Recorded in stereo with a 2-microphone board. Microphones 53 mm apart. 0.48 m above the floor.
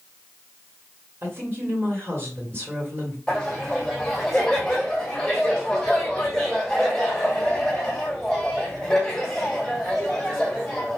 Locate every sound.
1.2 s a woman speaking: 50° right (ahead or behind), 1.8 m
3.3 s laughter: centre (ahead or behind), 1.9 m